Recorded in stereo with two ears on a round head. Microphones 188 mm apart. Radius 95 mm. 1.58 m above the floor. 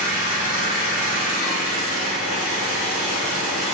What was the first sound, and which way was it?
An engine running, 35° right (ahead or behind).